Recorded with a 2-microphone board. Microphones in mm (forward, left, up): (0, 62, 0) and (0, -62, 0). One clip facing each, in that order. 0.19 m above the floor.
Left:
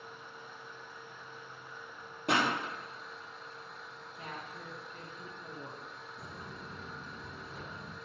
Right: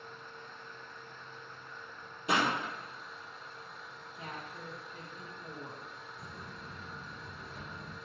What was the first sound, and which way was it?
A pop, 60° left (ahead or behind).